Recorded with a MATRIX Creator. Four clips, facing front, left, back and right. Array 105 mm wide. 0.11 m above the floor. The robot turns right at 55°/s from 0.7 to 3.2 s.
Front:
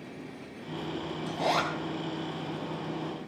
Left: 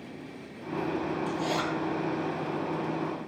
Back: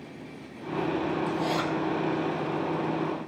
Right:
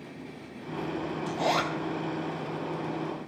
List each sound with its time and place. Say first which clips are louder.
1.3 s a zipper: right 2 dB, back 1 dB; 65° right, 1.9 m; by 1.7 s 40° right, 1.9 m